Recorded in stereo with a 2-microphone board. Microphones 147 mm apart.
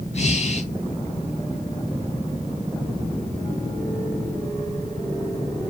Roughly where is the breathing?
Left.